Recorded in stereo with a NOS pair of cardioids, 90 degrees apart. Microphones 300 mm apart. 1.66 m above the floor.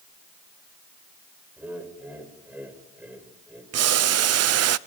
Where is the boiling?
55° right, 0.9 m.